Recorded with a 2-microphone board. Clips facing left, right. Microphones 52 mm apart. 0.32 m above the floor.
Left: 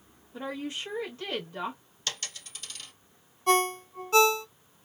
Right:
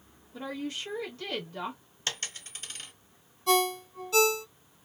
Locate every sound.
0.3 s a woman speaking: 25° left (ahead or behind), 1.0 m
2.1 s a dropped coin: 35° right (ahead or behind), 1.1 m
3.5 s a ringtone: 40° left (ahead or behind), 0.6 m